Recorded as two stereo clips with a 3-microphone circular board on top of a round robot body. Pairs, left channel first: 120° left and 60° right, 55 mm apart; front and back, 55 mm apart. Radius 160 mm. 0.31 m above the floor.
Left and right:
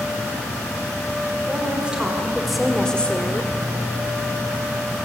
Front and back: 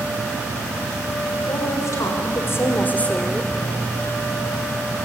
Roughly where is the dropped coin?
I don't hear a dropped coin.